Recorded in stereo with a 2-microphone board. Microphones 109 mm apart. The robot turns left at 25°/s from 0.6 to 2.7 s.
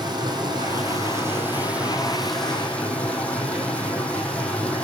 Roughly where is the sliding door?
No sliding door in this recording.